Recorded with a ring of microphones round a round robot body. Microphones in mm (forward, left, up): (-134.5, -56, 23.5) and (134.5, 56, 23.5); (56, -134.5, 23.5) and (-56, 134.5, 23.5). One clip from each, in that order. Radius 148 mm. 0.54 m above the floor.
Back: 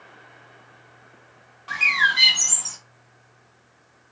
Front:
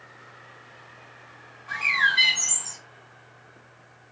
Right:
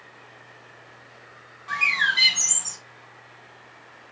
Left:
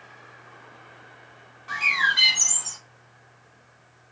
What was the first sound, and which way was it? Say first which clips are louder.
A bird: back 3 dB, even; 150° right.